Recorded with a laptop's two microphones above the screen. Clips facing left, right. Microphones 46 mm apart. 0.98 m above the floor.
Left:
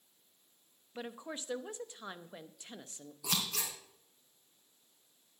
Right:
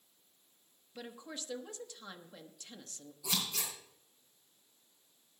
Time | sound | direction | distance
0.9 | a woman speaking | 25° left (ahead or behind) | 0.9 m
3.2 | scissors | 60° left (ahead or behind) | 3.5 m